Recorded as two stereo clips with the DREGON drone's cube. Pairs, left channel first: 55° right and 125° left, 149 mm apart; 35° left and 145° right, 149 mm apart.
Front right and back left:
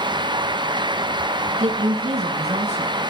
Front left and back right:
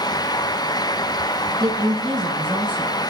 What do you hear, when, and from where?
1.6 s a woman speaking: 160° left, 3.5 m